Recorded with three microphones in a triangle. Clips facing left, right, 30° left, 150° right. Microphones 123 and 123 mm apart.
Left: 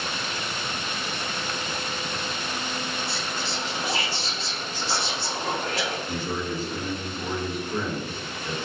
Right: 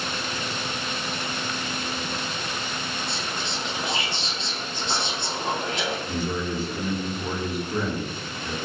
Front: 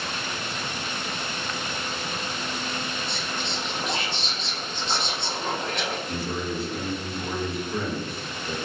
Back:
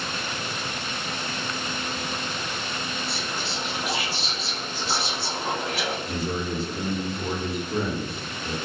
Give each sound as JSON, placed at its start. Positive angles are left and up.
{"t": 3.1, "sound": "whispering", "azimuth_deg": -75, "distance_m": 0.6}
{"t": 6.1, "sound": "a man speaking", "azimuth_deg": -155, "distance_m": 1.0}